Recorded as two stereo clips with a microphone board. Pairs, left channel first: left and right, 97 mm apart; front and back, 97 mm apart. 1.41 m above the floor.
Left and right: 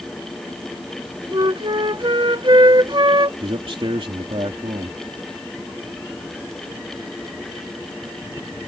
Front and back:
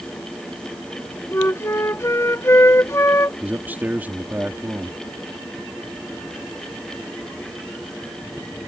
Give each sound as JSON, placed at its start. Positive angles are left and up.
{"t": 1.3, "sound": "a flute", "azimuth_deg": -60}
{"t": 3.4, "sound": "a man speaking", "azimuth_deg": -110}